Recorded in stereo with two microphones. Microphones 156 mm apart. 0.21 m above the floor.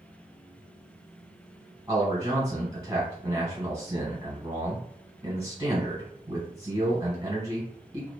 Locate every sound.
1.9 s a man speaking: 20° right (ahead or behind), 1.7 m